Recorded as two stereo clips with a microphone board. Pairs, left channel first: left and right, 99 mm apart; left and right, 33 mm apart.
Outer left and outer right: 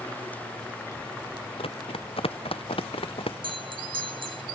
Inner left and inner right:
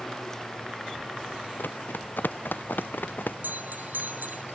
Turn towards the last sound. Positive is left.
turn(degrees=-65)  # may be behind; listen again after turning